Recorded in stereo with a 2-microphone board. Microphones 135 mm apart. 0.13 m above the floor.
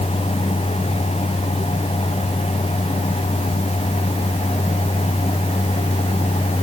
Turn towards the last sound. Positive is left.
No sound to turn to.